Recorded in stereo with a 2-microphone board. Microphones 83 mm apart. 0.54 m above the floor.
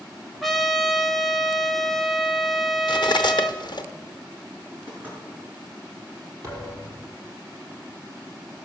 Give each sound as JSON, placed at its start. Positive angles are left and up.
{"t": 0.4, "sound": "a trumpet", "side_deg": 5, "distance_m": 1.1}
{"t": 2.9, "sound": "cutlery clinking", "side_deg": 60, "distance_m": 0.8}
{"t": 4.9, "sound": "knocking", "side_deg": -20, "distance_m": 6.0}
{"t": 6.4, "sound": "a thud", "side_deg": -35, "distance_m": 3.5}